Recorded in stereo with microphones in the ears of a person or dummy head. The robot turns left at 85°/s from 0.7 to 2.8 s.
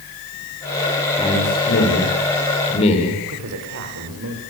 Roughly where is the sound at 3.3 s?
Right.